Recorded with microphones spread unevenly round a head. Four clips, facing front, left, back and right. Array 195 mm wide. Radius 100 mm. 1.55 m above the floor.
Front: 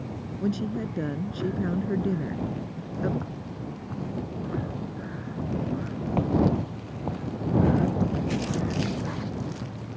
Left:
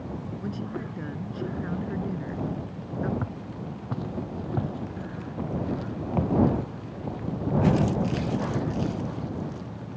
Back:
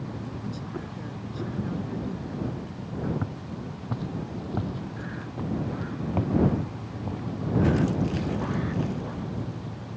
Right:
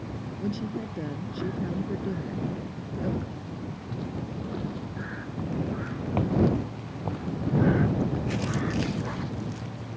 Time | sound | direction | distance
0.4 | a woman speaking | 10° right | ?
3.2 | footsteps | 130° left | ?